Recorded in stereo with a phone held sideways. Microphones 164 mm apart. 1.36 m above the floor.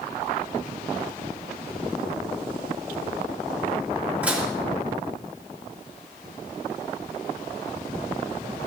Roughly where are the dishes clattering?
Centre.